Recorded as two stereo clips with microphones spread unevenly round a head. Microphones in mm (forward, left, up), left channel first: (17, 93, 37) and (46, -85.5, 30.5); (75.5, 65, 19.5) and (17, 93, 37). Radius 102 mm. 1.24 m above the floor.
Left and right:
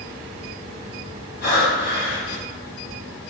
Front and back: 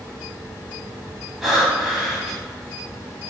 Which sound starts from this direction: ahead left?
Breathing, at 1.4 s.